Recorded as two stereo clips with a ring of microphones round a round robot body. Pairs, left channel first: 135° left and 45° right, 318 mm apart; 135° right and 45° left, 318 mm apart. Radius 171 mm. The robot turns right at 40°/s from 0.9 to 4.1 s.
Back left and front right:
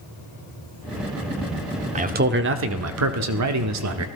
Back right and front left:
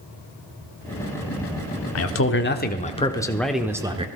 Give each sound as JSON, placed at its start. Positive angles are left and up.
{"t": 1.9, "sound": "a man speaking", "azimuth_deg": -105, "distance_m": 1.0}